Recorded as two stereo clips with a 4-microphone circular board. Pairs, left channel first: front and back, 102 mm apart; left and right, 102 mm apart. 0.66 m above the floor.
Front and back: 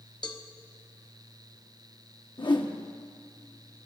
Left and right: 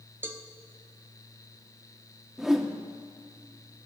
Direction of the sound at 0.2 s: 25° right.